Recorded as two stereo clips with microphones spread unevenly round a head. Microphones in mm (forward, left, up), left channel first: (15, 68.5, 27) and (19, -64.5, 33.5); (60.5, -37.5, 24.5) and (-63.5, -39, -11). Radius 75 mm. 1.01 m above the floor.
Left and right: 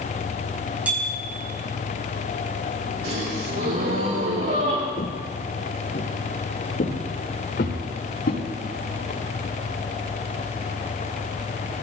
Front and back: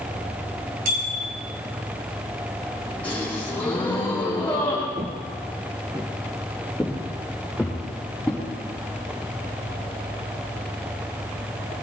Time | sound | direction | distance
0.8 | a bicycle bell | 170° right | 5 m
3.0 | a gasp | 75° right | 8 m
5.0 | footsteps | 125° left | 2 m